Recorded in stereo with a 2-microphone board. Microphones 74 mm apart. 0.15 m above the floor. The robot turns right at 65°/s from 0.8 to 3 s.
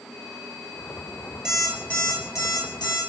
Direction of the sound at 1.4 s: 10° right.